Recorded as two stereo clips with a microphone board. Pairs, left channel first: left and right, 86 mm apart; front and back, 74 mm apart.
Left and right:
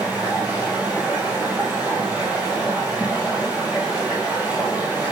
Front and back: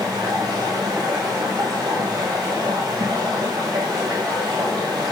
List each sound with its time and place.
0.0 s running water: 160° right, 1.9 m